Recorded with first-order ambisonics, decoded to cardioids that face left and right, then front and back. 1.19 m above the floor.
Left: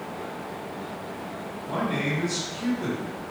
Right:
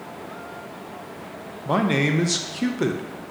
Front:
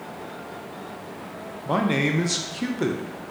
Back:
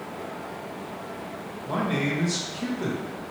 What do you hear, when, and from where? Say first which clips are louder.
1.6 s a man speaking: right 6 dB, front 4 dB; 60° right, 0.7 m